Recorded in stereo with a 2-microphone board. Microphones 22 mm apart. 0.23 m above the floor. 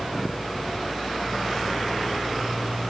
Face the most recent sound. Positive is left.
No sound to turn to.